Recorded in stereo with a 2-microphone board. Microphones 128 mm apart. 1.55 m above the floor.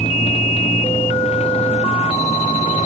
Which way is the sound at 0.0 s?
50° left (ahead or behind).